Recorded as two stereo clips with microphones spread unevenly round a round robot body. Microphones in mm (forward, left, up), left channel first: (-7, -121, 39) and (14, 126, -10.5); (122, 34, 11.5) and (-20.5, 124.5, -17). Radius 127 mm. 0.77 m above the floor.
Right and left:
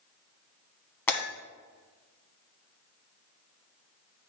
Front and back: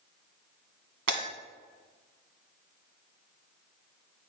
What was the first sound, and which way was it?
Breaking glass, 175° right.